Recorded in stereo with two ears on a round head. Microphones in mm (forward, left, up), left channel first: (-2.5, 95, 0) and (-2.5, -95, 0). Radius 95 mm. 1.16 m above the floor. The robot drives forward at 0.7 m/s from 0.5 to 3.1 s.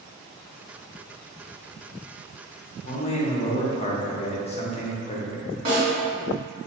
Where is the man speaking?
40° left (ahead or behind), 0.6 m; by 5.5 s 30° left (ahead or behind), 0.7 m.